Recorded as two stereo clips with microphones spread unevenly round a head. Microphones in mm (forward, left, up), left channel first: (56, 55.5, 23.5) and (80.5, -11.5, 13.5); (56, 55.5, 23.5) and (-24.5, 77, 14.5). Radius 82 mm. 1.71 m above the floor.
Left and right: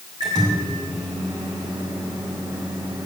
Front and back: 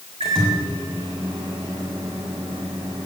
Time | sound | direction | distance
0.2 | a microwave | 140° right | 1.8 m